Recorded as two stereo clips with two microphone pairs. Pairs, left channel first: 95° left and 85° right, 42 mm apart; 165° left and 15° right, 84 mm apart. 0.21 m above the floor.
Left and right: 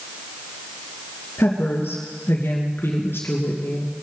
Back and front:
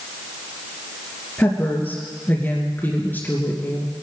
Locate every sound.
1.4 s a woman speaking: 100° left, 2.5 m